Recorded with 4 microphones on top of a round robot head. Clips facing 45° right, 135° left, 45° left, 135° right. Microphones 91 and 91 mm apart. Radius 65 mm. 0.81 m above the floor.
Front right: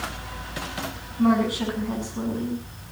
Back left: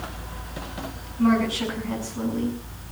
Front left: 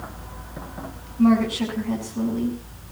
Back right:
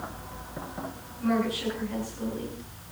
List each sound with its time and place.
1.2 s a woman speaking: 30° left, 7.5 m